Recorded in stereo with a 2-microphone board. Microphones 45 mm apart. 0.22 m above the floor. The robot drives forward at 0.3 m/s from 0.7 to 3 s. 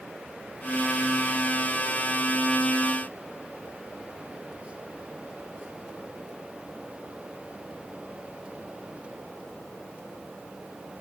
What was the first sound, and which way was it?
Only background noise.